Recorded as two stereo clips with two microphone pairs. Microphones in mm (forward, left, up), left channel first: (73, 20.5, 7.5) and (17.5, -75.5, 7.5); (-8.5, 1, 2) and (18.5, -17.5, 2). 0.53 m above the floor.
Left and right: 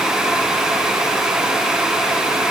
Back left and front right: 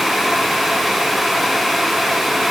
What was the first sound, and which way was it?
Only background noise.